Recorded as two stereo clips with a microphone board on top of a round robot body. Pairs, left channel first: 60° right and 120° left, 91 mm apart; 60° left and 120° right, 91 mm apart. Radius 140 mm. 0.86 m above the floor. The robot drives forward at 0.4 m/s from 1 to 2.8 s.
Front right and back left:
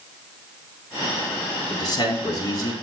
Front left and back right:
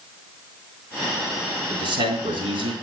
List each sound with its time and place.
1.7 s a man speaking: 105° right, 3.5 m; by 2.7 s 110° right, 3.5 m